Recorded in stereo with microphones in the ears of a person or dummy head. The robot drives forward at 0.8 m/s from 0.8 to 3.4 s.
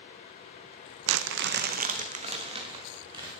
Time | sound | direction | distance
1.1 | crumpling | 70° right (ahead or behind) | 0.7 m